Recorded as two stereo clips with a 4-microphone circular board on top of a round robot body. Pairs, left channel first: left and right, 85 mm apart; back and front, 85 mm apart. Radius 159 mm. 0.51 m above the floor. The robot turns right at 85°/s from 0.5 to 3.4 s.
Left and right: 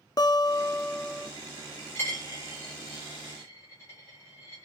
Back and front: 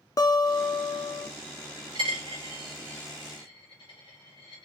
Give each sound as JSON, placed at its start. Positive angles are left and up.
{"t": 0.2, "sound": "a guitar", "azimuth_deg": 130, "distance_m": 0.5}
{"t": 1.9, "sound": "a dropped coin", "azimuth_deg": 20, "distance_m": 0.5}